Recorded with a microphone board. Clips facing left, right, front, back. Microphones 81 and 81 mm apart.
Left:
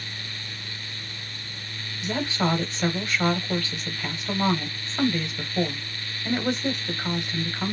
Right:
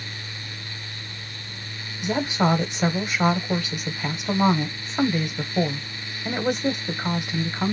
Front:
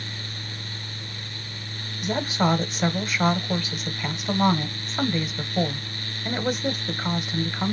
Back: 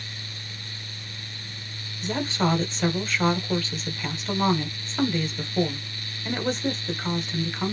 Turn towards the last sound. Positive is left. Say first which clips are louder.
# right 4 dB, front 2 dB
turn(degrees=-55)